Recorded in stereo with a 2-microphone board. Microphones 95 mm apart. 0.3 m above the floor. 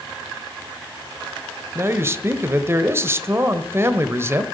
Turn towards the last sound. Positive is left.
turn(degrees=-30)  # may be behind; listen again after turning